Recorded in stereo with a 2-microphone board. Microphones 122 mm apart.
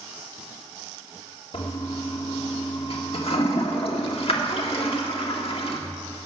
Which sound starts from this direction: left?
A toilet flushing, at 1.5 s.